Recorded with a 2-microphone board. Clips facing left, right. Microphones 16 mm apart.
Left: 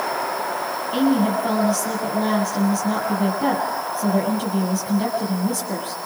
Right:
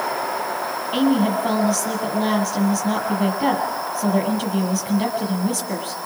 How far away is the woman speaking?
About 7.5 m.